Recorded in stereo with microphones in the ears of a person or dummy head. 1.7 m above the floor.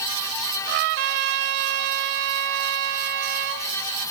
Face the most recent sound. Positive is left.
turn(degrees=-55)  # may be behind; listen again after turning